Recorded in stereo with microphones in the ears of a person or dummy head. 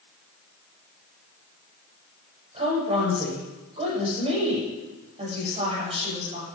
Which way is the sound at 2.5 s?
35° right (ahead or behind).